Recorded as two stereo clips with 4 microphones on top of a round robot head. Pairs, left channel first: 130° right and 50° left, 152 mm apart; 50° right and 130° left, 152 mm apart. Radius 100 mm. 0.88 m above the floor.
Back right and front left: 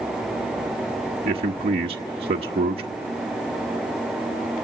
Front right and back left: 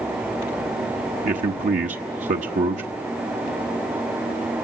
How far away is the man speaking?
About 1.1 m.